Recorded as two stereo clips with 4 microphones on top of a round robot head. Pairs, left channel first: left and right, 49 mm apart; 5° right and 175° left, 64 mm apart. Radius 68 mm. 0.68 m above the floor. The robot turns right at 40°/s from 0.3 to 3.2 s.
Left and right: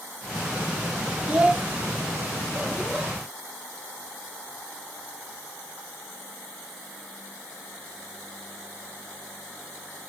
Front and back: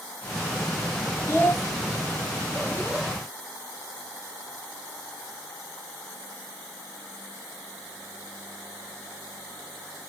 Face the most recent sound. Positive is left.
turn(degrees=40)